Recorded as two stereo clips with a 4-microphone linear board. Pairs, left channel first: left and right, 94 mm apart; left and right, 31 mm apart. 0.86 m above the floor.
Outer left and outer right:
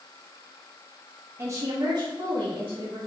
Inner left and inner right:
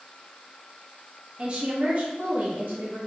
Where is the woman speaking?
25° right (ahead or behind), 0.7 m; by 3.0 s 60° right (ahead or behind), 1.4 m.